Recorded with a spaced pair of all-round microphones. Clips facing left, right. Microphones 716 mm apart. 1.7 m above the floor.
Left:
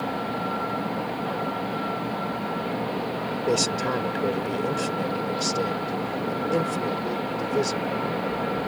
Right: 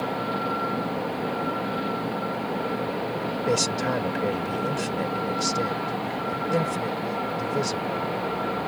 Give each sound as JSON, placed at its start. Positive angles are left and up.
{"t": 3.5, "sound": "a man speaking", "side_deg": -20}